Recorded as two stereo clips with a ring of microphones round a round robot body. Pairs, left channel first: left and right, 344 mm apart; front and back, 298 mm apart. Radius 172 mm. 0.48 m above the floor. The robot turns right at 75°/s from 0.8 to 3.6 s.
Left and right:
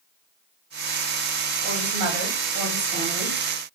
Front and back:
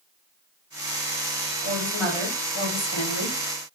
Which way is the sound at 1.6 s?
130° right.